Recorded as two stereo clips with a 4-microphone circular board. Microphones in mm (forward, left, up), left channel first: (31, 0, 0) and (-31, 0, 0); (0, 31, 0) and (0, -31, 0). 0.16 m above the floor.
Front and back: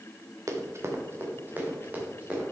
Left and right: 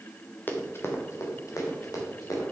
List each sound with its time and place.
0.5 s running footsteps: 150° left, 1.6 m; by 2.4 s 115° left, 4 m